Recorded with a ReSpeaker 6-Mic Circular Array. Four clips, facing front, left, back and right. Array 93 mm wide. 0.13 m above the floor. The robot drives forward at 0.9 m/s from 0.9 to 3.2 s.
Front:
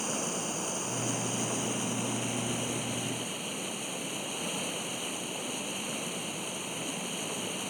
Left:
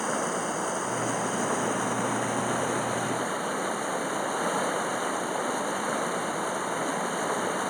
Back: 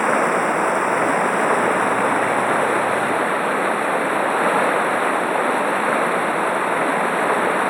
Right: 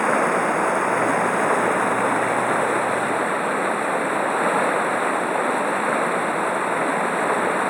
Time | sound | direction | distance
0.0 | running water | 150° right | ?